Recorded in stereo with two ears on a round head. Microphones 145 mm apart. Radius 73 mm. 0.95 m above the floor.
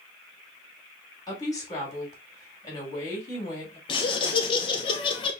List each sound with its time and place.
1.3 s a woman speaking: 25° left (ahead or behind), 2.5 m
3.9 s laughter: 30° left (ahead or behind), 0.7 m